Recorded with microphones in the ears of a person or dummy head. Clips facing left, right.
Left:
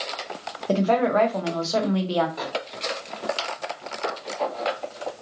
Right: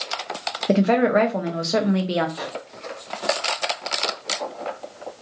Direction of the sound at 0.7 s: 30° right (ahead or behind).